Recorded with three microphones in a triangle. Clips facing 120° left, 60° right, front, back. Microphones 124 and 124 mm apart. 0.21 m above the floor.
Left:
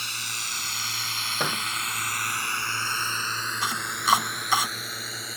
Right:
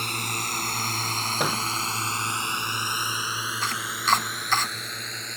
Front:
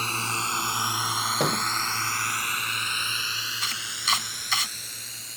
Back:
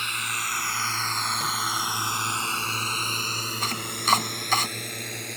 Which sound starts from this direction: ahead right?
A drone, at 0.0 s.